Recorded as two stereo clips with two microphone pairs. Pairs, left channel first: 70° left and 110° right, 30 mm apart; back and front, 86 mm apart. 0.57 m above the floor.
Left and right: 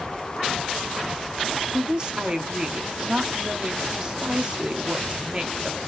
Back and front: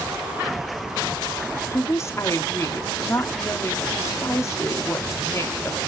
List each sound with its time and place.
1.7 s a woman speaking: 150° right, 0.9 m